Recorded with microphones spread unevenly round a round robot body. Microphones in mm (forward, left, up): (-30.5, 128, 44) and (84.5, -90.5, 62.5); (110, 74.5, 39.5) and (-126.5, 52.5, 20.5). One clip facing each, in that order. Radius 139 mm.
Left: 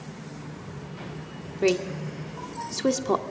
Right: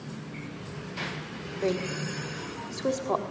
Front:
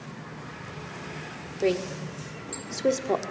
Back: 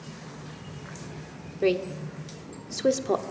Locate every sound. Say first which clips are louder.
1.6 s a woman speaking: left 5 dB, back 1 dB; 105° left, 1.5 m